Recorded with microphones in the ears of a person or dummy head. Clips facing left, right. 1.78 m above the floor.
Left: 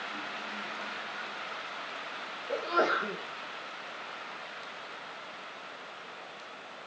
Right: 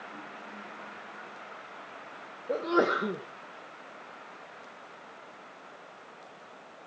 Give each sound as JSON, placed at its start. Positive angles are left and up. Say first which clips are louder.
{"t": 2.5, "sound": "a sneeze", "louder": "right 4 dB", "side_deg": -45, "distance_m": 1.3}